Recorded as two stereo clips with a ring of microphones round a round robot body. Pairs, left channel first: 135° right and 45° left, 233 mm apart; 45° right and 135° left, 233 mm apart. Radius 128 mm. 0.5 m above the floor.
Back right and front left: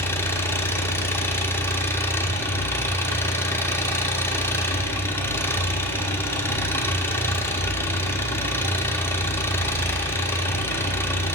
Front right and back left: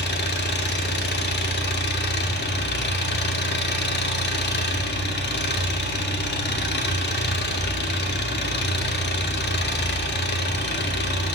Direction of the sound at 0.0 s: 60° right.